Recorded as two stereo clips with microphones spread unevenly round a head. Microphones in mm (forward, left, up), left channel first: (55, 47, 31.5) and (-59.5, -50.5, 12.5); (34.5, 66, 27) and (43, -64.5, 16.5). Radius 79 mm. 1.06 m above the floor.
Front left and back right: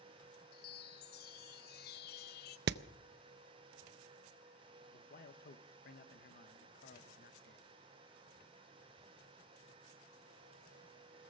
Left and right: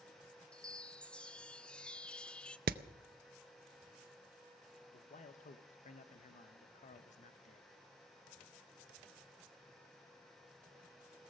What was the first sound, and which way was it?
A chime, 10° left.